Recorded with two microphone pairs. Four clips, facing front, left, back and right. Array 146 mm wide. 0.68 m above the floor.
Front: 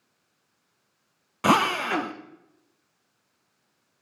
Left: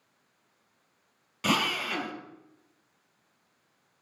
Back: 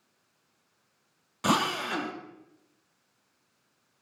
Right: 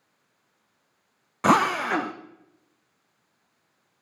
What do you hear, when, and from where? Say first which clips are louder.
1.4 s a drill: right 9 dB, front 6 dB; 55° right, 0.5 m